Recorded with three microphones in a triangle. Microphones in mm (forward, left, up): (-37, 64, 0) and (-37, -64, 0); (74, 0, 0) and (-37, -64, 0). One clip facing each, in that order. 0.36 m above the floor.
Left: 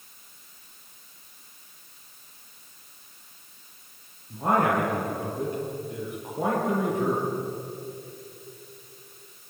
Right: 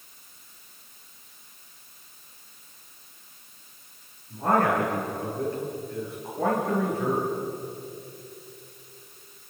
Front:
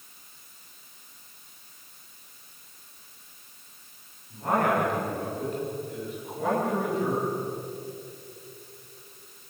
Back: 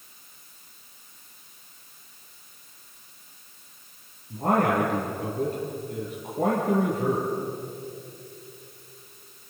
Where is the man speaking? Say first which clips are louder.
Even, back 2 dB; 165° left, 7.5 m.